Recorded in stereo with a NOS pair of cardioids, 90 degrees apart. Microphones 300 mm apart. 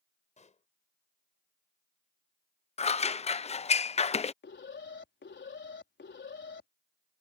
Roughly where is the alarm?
Ahead left.